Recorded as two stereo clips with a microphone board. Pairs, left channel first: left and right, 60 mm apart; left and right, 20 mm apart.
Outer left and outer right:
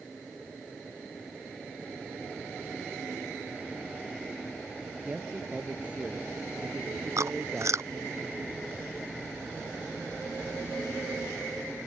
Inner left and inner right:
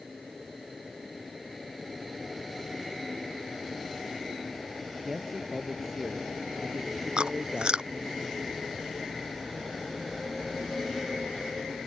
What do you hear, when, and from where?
5.1 s a man speaking: 25° right (ahead or behind)
7.2 s chewing: 60° right (ahead or behind)